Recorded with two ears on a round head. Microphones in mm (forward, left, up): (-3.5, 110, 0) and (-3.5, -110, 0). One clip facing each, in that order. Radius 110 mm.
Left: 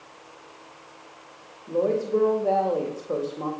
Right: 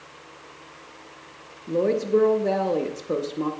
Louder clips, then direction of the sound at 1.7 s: Right 2 dB; 30° right (ahead or behind).